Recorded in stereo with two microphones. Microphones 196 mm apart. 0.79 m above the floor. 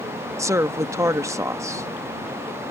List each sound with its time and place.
0.4 s a woman speaking: 15° right (ahead or behind)